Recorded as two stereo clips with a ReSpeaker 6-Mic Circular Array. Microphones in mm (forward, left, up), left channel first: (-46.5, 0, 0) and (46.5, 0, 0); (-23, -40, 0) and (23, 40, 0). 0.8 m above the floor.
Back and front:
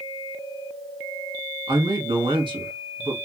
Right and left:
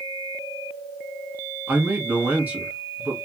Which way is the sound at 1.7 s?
5° right.